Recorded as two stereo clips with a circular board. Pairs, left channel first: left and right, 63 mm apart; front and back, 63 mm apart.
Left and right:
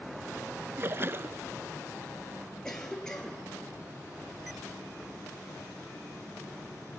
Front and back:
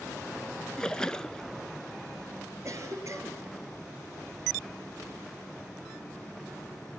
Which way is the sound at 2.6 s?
170° left.